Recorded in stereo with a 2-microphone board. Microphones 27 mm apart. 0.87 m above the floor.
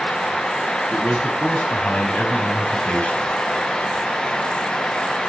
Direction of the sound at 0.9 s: 65° left (ahead or behind).